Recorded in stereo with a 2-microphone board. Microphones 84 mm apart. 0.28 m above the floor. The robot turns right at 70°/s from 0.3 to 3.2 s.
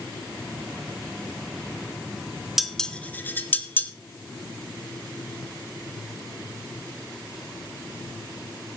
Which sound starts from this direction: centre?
Dishes clattering, at 2.6 s.